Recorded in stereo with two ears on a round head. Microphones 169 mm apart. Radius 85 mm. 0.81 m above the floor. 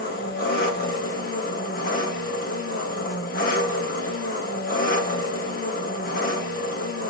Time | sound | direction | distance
0.0 | an engine running | 50° left (ahead or behind) | 1.2 m